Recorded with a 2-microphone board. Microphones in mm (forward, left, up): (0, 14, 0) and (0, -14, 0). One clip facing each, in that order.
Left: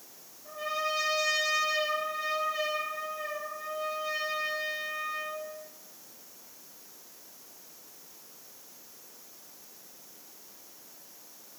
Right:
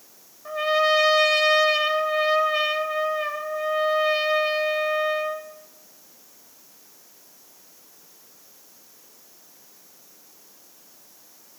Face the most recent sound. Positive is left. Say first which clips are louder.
# right 12 dB
turn(degrees=-70)  # may be behind; listen again after turning